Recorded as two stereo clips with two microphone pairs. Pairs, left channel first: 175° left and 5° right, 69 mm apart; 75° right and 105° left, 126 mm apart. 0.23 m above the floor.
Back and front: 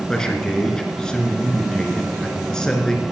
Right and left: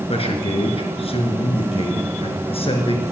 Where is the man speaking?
110° right, 2.5 m.